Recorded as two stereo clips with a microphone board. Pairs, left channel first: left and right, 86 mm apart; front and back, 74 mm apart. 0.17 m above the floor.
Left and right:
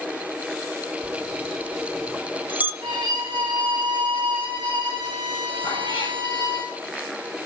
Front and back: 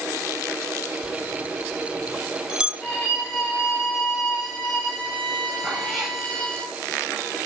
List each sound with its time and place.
1.0 s a bell: 120° right, 1.8 m
2.8 s a violin: 80° right, 3 m
5.6 s a cat meowing: 95° left, 7 m